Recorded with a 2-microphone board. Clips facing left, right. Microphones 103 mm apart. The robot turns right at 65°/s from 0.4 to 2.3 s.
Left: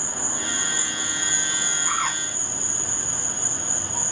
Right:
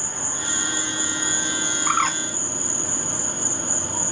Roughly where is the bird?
Right.